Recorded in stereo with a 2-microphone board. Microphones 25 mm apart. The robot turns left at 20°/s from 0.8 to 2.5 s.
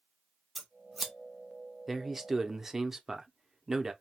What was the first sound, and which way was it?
Scissors, centre (ahead or behind).